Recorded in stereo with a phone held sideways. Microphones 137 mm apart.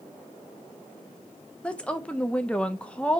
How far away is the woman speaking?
About 0.9 m.